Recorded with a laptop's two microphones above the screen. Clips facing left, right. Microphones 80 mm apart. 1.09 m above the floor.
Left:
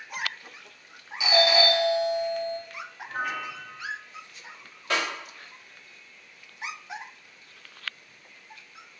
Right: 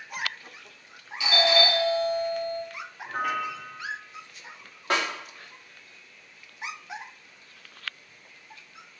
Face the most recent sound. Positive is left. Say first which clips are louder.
# right 2 dB
turn(degrees=-45)  # may be behind; listen again after turning